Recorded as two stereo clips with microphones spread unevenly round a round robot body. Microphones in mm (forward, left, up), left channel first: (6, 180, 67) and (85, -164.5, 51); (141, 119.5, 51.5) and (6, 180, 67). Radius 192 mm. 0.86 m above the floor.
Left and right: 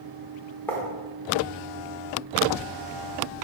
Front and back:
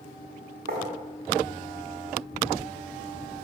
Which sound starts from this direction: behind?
Writing, at 0.7 s.